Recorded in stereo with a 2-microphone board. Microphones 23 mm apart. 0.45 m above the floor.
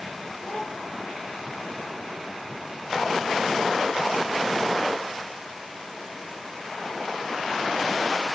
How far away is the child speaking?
About 8 m.